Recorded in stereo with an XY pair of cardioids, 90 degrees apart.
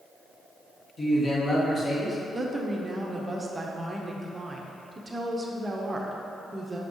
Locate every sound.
1.0 s a man speaking: 40° left, 1.9 m
2.3 s a woman speaking: 25° right, 1.0 m